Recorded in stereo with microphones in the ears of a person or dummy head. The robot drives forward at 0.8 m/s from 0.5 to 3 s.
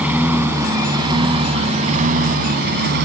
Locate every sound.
0.0 s a lawn mower: 10° right (ahead or behind); by 3.0 s 65° right (ahead or behind)